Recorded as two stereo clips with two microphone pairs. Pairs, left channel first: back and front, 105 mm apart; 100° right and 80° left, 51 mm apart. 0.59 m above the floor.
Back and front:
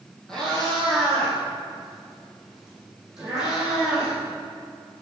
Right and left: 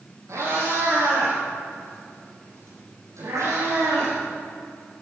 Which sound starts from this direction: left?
A cat meowing, at 0.3 s.